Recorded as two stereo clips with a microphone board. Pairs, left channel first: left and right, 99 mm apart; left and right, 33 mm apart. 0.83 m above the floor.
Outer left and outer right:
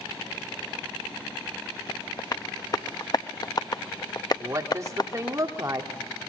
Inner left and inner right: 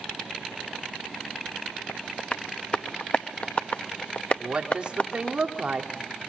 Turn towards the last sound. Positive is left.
turn(degrees=-30)  # may be behind; listen again after turning